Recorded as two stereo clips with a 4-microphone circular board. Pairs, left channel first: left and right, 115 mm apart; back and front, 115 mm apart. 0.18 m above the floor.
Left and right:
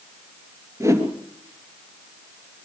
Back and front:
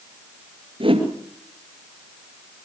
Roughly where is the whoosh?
Ahead right.